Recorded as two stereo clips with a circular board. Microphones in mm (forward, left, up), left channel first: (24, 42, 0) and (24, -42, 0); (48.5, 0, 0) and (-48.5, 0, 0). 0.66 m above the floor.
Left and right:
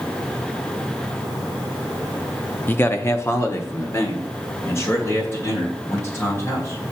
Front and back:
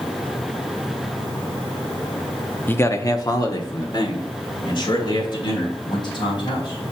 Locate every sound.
2.7 s a man speaking: 50° left, 0.6 m; by 6.8 s 35° left, 4 m